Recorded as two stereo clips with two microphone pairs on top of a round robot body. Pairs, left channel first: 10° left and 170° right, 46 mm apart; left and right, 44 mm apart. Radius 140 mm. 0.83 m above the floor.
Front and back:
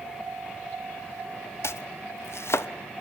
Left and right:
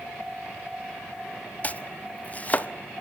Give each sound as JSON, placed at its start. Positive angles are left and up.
{"t": 1.6, "sound": "chopping", "azimuth_deg": 30, "distance_m": 1.0}